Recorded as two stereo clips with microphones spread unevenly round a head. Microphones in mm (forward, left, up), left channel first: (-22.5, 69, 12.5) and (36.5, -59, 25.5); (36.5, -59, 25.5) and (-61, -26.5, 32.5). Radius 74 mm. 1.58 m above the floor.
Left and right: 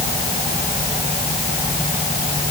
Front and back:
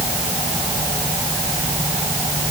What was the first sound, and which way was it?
Only background noise.